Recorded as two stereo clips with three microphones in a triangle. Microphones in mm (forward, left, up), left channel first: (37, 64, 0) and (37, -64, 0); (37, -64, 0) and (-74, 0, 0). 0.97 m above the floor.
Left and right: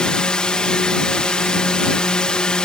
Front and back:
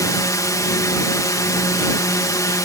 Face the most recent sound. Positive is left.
turn(degrees=10)